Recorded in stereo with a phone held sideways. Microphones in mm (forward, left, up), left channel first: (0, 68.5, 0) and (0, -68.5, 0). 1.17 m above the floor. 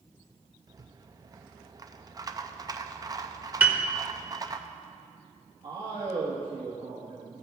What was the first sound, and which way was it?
A rattle, 25° right (ahead or behind).